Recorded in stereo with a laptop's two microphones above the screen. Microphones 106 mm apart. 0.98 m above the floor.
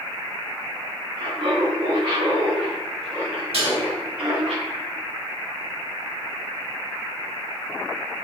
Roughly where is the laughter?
Right.